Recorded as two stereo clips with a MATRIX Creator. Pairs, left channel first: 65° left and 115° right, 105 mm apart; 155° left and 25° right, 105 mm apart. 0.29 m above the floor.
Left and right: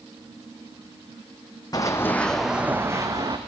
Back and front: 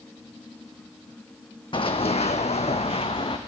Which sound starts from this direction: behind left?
Running footsteps, at 1.7 s.